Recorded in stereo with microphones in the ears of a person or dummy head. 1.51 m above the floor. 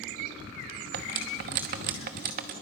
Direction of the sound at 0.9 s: 40° right (ahead or behind).